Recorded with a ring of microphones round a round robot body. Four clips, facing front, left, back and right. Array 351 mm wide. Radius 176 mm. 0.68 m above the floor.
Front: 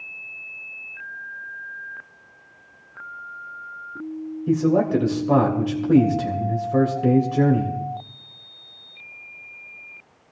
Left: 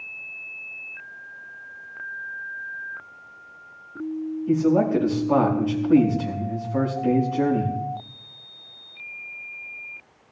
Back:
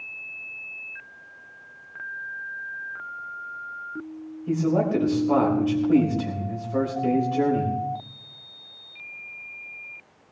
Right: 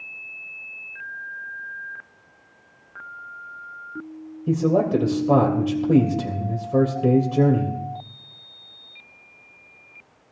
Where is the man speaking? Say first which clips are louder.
Even, front 4 dB; 65° right, 3.5 m.